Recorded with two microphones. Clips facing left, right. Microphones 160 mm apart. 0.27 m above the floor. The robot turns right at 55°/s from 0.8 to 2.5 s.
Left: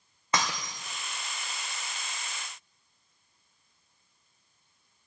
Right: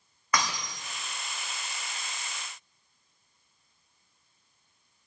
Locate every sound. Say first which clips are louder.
0.3 s breaking glass: even; 25° left (ahead or behind), 2.5 m